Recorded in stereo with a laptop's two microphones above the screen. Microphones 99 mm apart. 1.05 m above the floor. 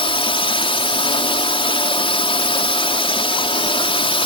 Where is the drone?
65° left (ahead or behind).